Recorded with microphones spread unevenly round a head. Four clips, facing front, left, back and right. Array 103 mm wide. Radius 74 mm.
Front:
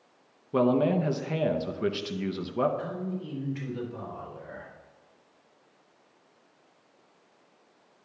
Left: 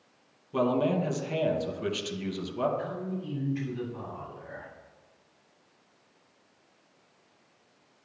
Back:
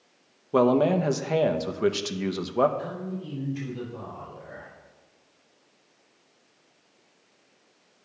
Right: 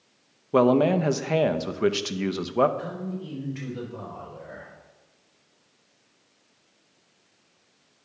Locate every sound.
0.5 s a man speaking: 120° right, 0.7 m
2.8 s a man speaking: 35° right, 3.5 m